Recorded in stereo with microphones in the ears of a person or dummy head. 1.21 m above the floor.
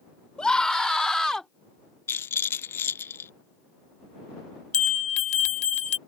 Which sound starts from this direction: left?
A bell, at 4.7 s.